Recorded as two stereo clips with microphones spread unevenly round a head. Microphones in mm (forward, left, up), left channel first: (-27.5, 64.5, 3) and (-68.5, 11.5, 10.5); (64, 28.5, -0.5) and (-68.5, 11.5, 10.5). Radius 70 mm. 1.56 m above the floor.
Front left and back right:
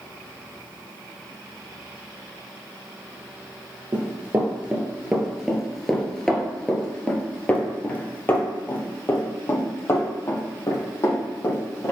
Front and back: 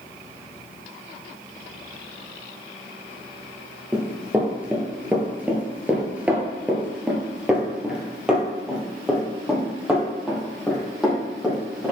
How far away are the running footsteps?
About 1.8 m.